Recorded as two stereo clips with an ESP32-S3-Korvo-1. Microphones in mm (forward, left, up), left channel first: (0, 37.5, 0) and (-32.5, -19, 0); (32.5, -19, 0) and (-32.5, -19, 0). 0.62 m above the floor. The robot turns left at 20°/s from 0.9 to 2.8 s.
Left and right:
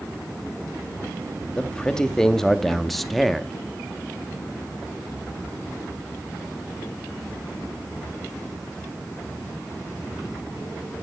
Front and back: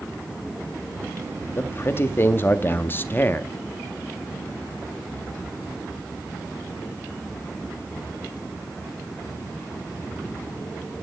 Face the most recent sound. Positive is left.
turn(degrees=-25)